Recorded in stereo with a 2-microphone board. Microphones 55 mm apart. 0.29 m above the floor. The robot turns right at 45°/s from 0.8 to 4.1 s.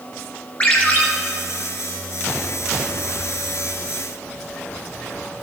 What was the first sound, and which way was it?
A ringtone, 25° left (ahead or behind).